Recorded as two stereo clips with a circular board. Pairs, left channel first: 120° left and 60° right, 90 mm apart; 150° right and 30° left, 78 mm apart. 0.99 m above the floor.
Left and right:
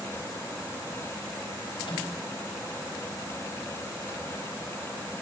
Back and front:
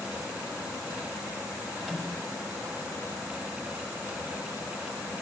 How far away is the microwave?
About 5 m.